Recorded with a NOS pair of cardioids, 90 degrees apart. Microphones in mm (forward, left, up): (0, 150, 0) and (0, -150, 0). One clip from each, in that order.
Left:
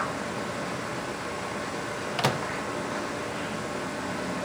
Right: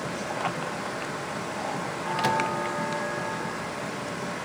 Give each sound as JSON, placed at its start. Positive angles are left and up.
{"t": 2.2, "sound": "a microwave", "azimuth_deg": 20, "distance_m": 0.9}